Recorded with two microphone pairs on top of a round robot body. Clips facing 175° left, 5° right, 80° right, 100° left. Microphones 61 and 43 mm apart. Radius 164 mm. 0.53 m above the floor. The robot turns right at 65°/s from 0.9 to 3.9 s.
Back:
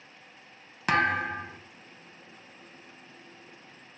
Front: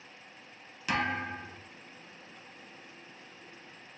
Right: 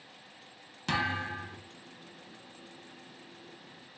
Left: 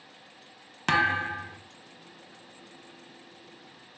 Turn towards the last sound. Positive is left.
turn(degrees=-30)